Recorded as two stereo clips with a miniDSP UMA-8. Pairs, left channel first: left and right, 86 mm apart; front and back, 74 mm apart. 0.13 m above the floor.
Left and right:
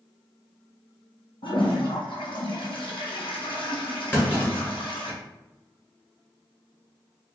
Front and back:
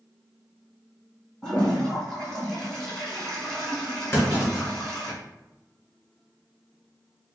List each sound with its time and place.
1.4 s a toilet flushing: 75° left, 1.6 m
4.1 s a clunk: 35° left, 1.8 m